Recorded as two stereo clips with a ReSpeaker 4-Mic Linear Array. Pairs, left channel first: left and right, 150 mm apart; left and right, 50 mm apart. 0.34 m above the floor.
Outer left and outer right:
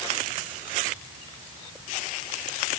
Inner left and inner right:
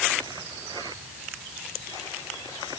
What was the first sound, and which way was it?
Only background noise.